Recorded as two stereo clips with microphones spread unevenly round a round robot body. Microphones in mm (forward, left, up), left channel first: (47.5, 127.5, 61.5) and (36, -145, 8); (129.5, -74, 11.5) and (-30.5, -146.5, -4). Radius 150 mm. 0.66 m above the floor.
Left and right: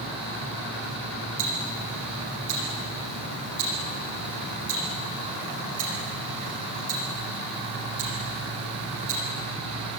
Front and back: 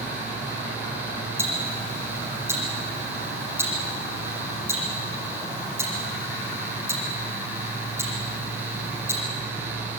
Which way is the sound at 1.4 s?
80° right.